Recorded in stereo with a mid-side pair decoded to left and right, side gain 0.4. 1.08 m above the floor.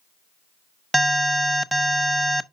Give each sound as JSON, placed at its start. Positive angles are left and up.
{"t": 0.9, "sound": "an alarm", "azimuth_deg": 0, "distance_m": 0.9}